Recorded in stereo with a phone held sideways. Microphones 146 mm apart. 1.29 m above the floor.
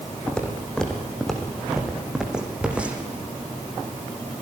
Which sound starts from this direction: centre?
Footsteps, at 0.3 s.